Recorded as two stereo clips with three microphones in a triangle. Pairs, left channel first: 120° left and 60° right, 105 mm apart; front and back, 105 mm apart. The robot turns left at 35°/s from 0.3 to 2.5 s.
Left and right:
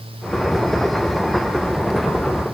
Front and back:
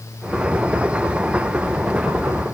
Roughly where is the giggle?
I don't hear a giggle.